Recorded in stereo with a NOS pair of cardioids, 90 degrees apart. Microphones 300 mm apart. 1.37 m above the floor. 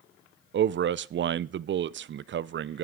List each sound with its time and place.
0.5 s a man speaking: 40° right, 0.5 m